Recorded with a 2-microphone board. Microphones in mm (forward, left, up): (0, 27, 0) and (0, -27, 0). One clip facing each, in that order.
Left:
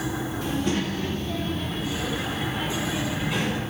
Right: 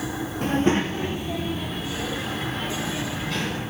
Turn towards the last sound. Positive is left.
turn(degrees=15)  # may be behind; listen again after turning